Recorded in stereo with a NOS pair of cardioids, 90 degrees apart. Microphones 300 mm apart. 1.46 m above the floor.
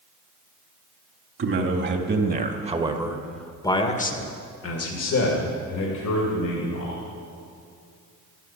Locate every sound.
1.4 s a man speaking: 40° right, 3 m; by 7.0 s 80° left, 4 m